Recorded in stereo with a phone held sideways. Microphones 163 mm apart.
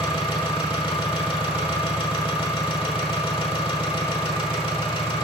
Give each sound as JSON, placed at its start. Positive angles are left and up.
{"t": 0.0, "sound": "an engine running", "side_deg": 30, "distance_m": 1.0}